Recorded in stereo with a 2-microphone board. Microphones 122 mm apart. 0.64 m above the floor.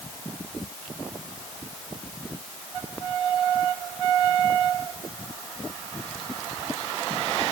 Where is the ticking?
I don't hear ticking.